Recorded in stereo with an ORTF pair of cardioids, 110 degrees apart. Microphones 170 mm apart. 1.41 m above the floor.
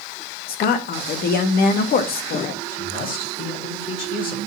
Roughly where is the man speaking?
Ahead left.